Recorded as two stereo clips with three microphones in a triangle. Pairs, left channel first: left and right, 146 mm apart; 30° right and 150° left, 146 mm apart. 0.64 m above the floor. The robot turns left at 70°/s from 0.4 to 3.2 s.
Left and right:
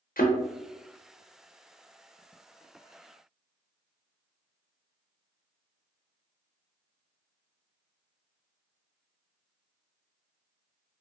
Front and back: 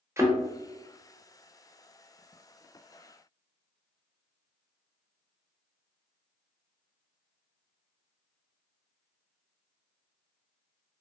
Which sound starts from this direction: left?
A thud, at 0.2 s.